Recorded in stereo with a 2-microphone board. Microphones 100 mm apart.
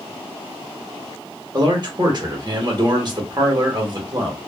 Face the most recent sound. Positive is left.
turn(degrees=-40)  # may be behind; listen again after turning